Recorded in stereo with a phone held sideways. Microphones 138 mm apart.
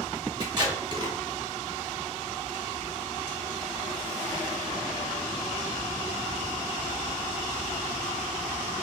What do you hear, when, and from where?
0.4 s tape being pulled: 30° right (ahead or behind), 1.1 m